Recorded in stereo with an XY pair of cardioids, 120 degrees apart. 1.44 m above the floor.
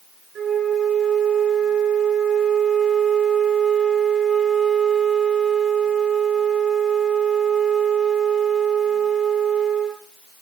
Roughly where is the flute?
Ahead right.